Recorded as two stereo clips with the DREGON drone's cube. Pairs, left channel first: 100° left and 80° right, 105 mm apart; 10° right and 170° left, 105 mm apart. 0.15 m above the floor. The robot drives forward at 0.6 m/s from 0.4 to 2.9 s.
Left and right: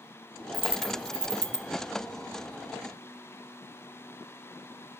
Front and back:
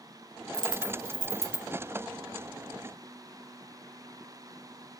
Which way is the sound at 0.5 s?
50° right.